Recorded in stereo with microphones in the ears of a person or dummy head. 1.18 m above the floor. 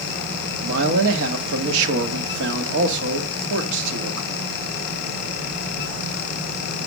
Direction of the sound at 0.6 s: 65° right (ahead or behind).